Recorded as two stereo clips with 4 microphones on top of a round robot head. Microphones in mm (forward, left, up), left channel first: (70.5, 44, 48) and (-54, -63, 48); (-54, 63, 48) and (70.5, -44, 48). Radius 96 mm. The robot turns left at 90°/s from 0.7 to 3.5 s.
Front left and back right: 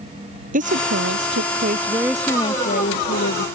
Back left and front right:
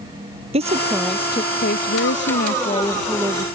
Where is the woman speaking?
95° right; by 3.5 s 15° left.